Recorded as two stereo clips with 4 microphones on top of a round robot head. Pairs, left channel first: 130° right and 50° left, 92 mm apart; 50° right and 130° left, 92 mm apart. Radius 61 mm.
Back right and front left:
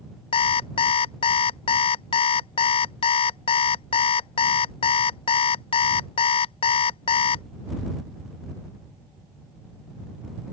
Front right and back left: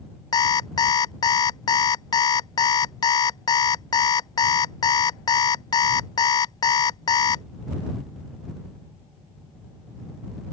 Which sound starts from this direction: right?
An alarm clock, at 0.3 s.